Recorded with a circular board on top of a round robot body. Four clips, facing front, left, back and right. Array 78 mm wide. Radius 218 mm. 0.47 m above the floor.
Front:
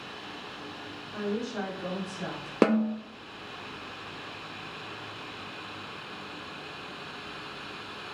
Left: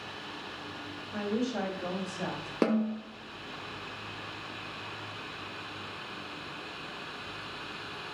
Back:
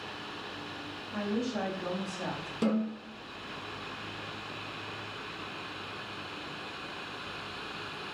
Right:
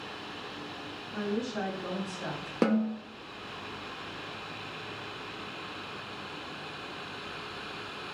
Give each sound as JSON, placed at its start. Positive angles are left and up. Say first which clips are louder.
{"t": 1.1, "sound": "a woman speaking", "louder": "left 1 dB, even", "azimuth_deg": 95, "distance_m": 4.5}
{"t": 2.6, "sound": "a snare drum", "louder": "right 1 dB, front 6 dB", "azimuth_deg": 0, "distance_m": 0.9}